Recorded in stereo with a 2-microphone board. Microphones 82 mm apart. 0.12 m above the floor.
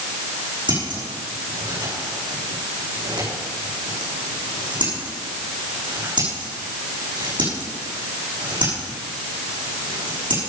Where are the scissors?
75° right (ahead or behind), 7 m.